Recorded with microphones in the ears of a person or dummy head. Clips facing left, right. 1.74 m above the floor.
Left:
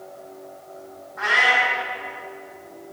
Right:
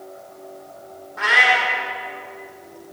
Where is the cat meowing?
45° right (ahead or behind), 2 m.